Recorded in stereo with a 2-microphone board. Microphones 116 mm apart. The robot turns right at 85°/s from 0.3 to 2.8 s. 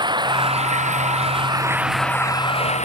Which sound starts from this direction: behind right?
Running water, at 0.0 s.